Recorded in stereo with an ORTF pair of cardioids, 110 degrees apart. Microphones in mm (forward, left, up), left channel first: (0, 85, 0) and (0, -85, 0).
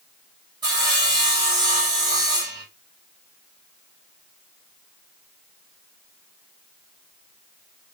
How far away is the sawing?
About 1.4 m.